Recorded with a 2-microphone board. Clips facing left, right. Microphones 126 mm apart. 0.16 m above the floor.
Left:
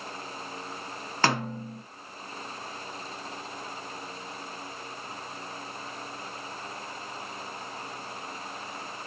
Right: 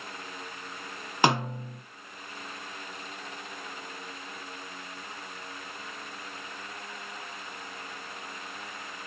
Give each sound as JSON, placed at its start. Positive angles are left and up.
{"t": 1.2, "sound": "a snare drum", "side_deg": -15, "distance_m": 1.7}